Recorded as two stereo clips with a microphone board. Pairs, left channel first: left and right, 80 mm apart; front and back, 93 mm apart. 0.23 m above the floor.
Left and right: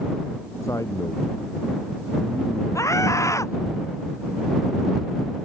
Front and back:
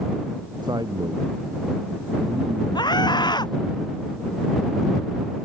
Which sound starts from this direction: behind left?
A man speaking, at 0.6 s.